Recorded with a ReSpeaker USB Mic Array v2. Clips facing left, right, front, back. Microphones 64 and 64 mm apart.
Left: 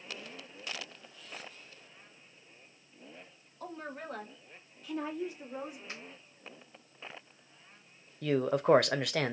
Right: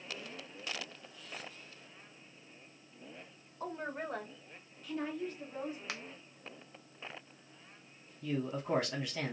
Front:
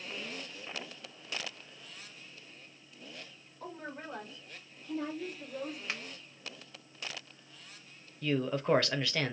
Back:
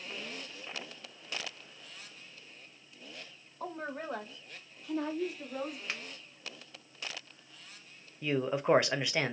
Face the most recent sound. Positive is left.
turn(degrees=110)